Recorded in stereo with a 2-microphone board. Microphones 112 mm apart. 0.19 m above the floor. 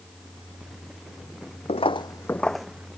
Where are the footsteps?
65° left (ahead or behind); by 2.9 s 10° right (ahead or behind).